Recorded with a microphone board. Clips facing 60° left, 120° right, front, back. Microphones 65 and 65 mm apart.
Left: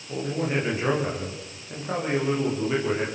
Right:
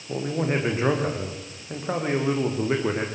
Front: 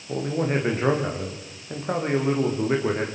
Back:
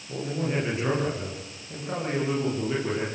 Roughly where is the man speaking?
Ahead right.